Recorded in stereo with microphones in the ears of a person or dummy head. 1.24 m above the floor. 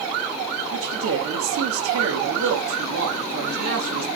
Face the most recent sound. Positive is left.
turn(degrees=-60)  # may be behind; listen again after turning